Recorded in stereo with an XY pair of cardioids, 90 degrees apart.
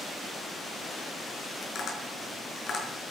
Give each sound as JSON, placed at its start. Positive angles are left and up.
{"t": 1.6, "sound": "tapping", "azimuth_deg": 60, "distance_m": 6.0}